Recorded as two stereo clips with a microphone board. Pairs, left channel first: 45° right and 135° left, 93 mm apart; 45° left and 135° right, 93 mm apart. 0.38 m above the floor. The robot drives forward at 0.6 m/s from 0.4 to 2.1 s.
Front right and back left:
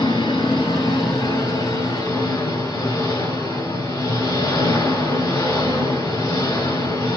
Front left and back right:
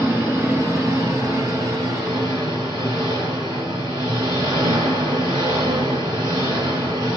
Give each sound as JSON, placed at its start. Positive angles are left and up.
{"t": 0.0, "sound": "an engine running", "azimuth_deg": -70, "distance_m": 2.5}